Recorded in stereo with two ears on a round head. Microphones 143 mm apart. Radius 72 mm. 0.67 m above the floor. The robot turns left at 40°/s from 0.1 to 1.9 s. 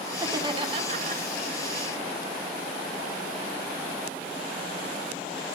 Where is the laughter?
20° right, 1.9 m; by 1.2 s 65° right, 1.9 m.